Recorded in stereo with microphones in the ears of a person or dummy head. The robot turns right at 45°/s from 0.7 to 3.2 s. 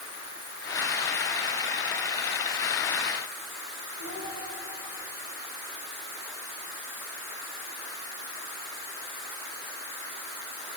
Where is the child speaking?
90° left, 7 m.